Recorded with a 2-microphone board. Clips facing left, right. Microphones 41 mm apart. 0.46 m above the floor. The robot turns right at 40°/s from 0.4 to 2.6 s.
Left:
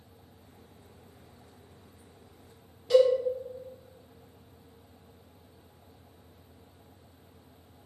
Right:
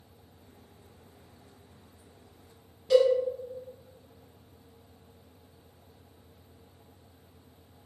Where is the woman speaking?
I don't hear a woman speaking.